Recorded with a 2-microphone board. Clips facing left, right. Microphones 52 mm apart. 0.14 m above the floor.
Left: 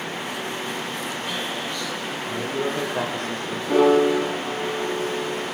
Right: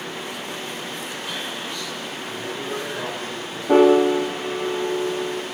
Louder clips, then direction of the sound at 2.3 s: Left 5 dB; 70° left (ahead or behind).